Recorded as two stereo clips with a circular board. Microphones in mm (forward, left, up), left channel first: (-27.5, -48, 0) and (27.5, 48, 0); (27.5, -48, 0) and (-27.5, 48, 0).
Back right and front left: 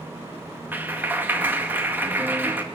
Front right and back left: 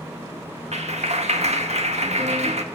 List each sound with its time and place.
0.7 s a clap: 135° left, 1.8 m